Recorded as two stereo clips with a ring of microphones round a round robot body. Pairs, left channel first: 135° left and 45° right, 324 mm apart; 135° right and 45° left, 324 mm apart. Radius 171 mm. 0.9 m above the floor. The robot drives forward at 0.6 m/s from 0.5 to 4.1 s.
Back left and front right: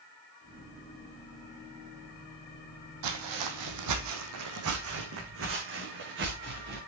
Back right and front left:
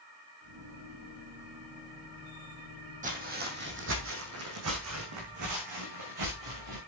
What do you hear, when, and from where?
3.0 s footsteps: 20° right, 2.5 m; by 6.8 s 15° left, 5.5 m